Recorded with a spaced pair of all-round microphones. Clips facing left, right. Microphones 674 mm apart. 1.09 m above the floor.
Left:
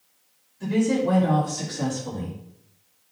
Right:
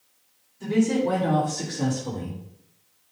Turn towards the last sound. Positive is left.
turn(degrees=25)  # may be behind; listen again after turning